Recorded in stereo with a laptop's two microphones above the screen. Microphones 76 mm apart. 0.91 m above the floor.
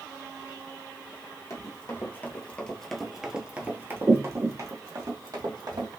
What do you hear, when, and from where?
1.5 s running footsteps: 40° left (ahead or behind), 1.2 m; by 5.9 s 60° right (ahead or behind), 1.7 m